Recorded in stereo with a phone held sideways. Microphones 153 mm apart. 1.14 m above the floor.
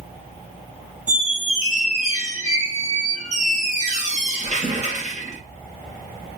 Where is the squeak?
50° right (ahead or behind), 0.7 m.